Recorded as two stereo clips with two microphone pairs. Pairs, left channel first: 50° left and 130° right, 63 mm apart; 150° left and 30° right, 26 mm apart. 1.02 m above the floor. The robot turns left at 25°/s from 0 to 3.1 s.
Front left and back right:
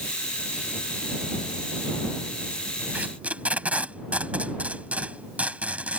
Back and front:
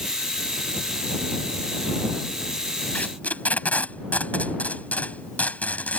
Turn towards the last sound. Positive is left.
turn(degrees=160)